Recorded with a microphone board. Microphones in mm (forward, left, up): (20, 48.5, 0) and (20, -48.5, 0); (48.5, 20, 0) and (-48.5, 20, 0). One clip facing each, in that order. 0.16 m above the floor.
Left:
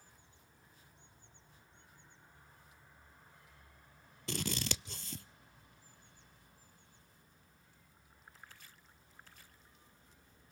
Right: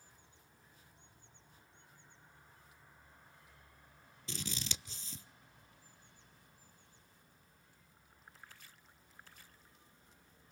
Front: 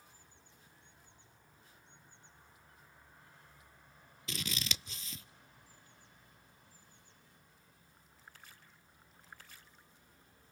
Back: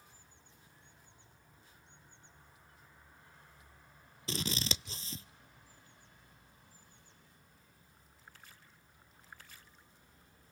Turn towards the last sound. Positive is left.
turn(degrees=120)